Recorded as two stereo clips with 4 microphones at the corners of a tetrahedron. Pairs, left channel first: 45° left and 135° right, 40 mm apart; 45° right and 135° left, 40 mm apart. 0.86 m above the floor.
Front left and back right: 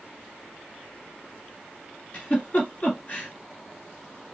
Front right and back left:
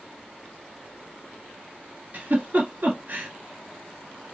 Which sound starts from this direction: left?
A giggle, at 2.1 s.